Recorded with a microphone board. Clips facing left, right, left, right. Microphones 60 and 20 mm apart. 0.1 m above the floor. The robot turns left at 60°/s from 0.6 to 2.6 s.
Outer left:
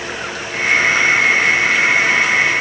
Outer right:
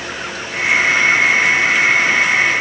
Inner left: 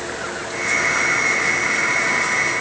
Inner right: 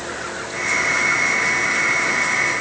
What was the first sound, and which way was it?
Only background noise.